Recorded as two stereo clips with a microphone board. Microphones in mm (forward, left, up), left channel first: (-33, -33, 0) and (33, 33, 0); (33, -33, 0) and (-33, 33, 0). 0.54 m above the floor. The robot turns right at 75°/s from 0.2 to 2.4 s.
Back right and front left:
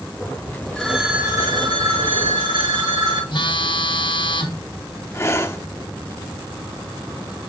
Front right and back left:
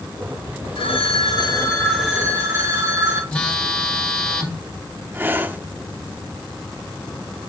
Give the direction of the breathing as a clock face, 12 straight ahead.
6 o'clock.